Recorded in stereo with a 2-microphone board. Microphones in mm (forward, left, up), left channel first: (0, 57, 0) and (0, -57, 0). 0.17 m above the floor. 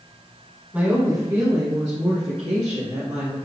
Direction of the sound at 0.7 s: 15° right (ahead or behind).